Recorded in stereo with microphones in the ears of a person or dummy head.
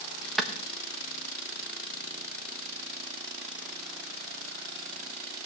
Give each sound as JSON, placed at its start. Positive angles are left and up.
{"t": 0.4, "sound": "a clap", "side_deg": 5, "distance_m": 1.1}